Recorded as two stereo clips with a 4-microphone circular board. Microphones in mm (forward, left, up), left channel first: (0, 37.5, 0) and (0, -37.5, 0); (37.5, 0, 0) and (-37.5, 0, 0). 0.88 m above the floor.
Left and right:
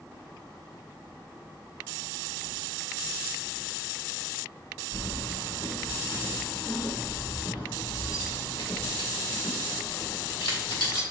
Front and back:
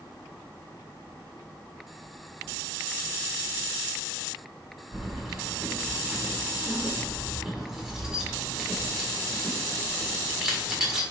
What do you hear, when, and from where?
4.9 s keys jangling: 95° left, 1.7 m